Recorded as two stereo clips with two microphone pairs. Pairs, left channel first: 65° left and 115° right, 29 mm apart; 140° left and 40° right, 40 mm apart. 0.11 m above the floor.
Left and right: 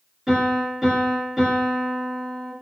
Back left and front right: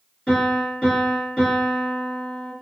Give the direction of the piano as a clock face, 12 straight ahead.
6 o'clock.